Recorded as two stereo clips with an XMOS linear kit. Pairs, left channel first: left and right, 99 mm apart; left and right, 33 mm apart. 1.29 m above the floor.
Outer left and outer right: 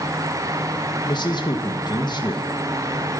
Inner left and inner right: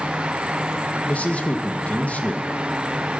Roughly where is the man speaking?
Left.